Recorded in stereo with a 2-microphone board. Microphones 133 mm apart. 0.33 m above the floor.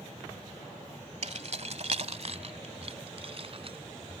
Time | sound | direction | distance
1.2 | keys jangling | 55° right (ahead or behind) | ?